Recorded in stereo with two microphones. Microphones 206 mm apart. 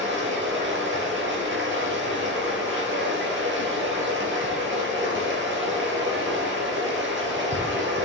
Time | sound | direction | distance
0.0 | running water | 65° right (ahead or behind) | 3.5 m